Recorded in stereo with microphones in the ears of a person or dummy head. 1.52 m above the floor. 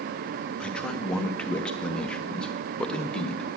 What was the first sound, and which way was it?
A man speaking, 5° left (ahead or behind).